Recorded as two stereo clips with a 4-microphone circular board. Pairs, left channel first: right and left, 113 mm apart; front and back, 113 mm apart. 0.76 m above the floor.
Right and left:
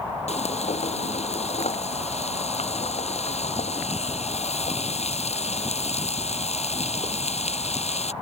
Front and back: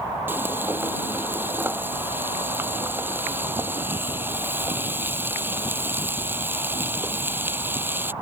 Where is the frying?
110° right.